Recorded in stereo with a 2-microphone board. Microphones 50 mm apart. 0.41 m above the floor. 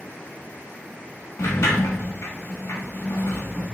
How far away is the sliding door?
About 1.3 m.